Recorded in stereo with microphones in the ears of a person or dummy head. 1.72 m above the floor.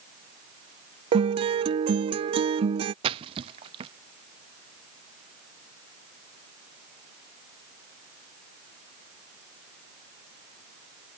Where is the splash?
30° right (ahead or behind).